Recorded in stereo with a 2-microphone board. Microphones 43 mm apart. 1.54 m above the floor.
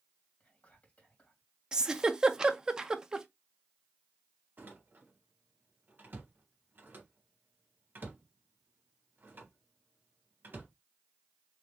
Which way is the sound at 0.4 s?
35° left (ahead or behind).